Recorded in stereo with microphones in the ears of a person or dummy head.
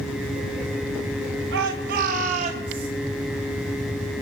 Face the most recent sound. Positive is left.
turn(degrees=-25)  # may be behind; listen again after turning